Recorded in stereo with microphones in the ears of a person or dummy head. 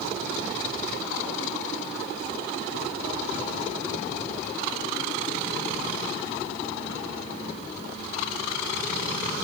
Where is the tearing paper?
No tearing paper in this recording.